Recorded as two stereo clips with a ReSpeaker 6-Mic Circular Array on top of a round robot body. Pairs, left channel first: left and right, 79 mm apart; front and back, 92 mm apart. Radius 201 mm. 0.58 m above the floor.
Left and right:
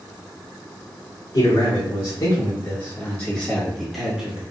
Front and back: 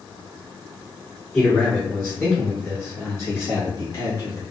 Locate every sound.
1.3 s a man speaking: 75° left, 1.7 m; by 4.4 s 20° right, 1.3 m